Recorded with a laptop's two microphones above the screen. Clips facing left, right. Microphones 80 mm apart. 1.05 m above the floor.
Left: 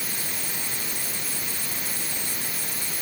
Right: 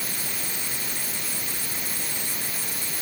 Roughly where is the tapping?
I don't hear tapping.